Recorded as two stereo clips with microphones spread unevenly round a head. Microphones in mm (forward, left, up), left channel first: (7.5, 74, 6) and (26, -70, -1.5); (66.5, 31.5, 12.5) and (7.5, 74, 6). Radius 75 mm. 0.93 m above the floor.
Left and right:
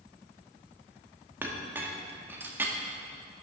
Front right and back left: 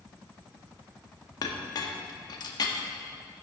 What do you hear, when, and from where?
1.4 s a clink: 5° right, 1.2 m